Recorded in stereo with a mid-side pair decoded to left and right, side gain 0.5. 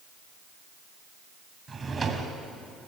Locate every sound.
1.7 s a drawer: 30° right, 3 m